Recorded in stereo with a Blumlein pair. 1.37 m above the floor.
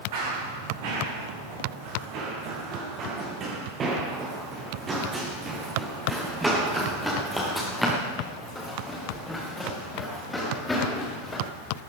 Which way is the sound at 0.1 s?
50° right.